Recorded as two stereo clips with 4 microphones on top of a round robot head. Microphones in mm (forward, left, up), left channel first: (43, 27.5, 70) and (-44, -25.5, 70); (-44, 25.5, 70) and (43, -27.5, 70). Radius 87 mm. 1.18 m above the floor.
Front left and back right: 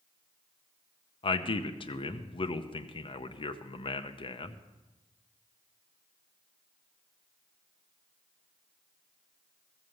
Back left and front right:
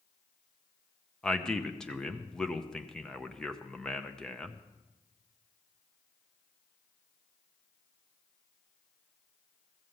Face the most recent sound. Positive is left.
turn(degrees=65)